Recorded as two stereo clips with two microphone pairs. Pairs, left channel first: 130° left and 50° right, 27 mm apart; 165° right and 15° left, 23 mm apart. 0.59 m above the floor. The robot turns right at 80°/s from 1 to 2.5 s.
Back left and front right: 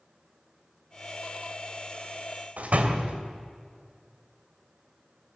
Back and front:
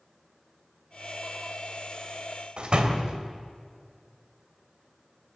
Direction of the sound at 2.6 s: 25° right.